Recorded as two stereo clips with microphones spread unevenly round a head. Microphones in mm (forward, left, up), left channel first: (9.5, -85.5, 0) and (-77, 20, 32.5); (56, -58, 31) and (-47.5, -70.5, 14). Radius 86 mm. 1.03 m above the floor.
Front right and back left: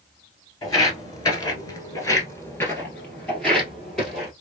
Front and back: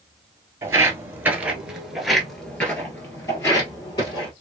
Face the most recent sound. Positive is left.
turn(degrees=50)